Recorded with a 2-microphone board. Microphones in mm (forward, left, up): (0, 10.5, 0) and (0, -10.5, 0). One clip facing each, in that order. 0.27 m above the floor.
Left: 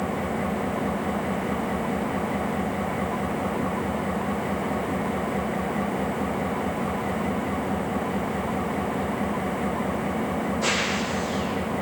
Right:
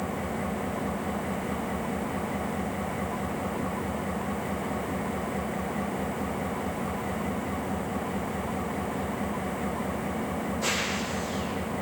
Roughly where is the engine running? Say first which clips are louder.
Left 4 dB; centre.